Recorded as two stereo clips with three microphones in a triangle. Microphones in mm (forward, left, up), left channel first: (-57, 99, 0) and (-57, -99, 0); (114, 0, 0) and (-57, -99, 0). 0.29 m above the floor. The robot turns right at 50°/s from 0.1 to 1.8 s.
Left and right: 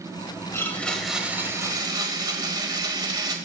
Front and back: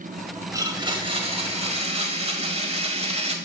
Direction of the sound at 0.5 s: 155° left.